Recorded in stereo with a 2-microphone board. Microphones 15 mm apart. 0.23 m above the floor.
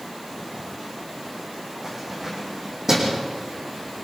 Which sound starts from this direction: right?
Keys jangling, at 1.8 s.